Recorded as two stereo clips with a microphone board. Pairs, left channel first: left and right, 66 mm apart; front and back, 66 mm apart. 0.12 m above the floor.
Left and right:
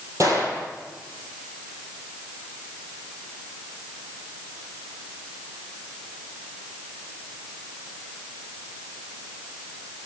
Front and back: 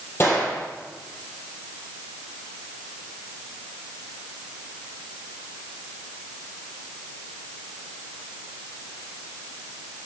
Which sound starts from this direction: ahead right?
A gunshot, at 0.2 s.